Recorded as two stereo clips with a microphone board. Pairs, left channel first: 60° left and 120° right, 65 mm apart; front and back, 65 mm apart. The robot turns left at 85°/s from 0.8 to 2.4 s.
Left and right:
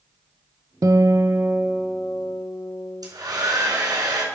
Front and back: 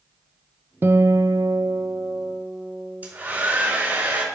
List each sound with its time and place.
0.8 s a guitar: 135° right, 0.6 m; by 3.1 s 90° left, 0.6 m
3.0 s a hair dryer: 120° right, 3 m